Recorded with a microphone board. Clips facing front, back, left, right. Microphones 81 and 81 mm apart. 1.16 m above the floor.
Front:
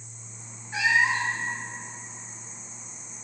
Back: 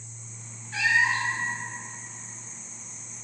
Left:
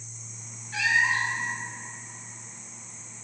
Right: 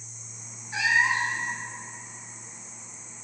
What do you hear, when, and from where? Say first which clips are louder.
0.7 s a cat meowing: front 1 dB, right 1 dB; 50° right, 0.6 m